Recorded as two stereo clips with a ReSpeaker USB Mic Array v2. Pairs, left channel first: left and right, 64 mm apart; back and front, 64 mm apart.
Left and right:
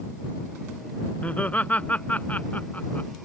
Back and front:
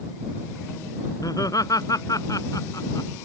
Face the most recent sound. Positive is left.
turn(degrees=155)